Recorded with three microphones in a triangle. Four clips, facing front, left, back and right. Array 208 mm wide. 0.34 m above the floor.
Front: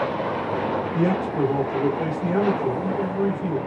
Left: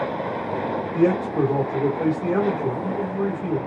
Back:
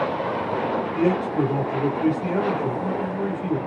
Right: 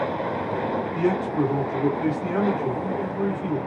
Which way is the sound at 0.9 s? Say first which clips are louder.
Left 5 dB, back 2 dB; 80° left.